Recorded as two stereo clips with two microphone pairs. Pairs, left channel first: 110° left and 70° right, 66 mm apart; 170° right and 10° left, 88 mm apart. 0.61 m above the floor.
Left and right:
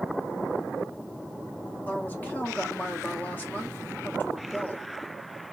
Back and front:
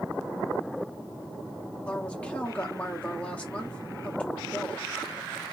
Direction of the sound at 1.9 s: 125° left.